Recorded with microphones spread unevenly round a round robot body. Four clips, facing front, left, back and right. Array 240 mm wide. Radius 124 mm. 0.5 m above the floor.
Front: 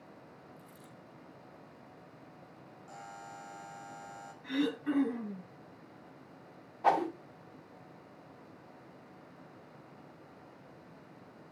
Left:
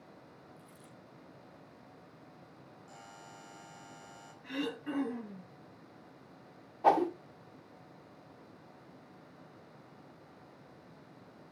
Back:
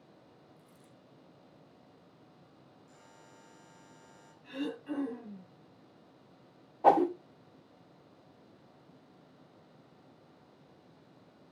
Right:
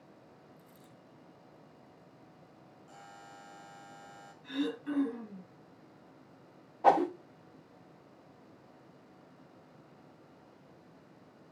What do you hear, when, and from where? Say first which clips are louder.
0.6 s a dropped coin: left 2 dB, front 5 dB; 10° left, 8 m
2.9 s a buzzer: right 2 dB, front 15 dB; 15° left, 4 m
4.4 s throat clearing: right 3 dB, front 5 dB; 15° left, 6.5 m
6.8 s a whoosh: right 2 dB, back 5 dB; 170° right, 0.9 m